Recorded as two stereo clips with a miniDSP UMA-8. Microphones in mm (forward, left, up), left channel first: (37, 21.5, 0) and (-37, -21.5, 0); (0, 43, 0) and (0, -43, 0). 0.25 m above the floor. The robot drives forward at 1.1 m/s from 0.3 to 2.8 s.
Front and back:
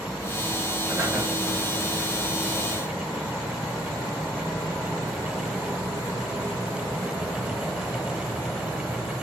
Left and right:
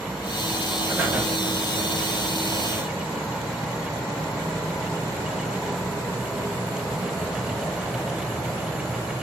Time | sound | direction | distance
0.9 | breathing | 120° right | 1.3 m